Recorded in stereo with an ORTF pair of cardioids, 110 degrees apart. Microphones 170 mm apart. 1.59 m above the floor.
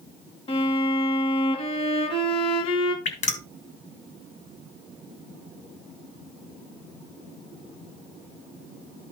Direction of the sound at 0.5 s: 35° left.